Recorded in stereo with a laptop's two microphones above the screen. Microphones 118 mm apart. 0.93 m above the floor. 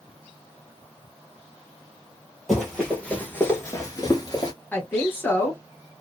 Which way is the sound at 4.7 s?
15° left (ahead or behind).